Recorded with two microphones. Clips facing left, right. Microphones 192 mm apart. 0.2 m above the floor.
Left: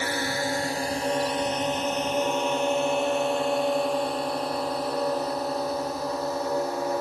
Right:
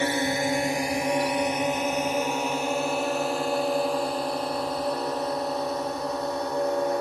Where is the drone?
20° right (ahead or behind); by 7.0 s 5° left (ahead or behind).